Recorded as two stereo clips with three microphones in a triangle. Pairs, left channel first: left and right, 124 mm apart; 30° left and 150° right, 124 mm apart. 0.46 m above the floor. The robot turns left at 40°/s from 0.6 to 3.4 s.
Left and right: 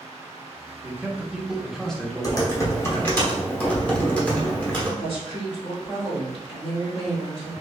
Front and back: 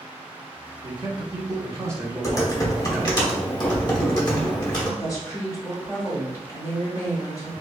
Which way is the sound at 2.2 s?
70° left.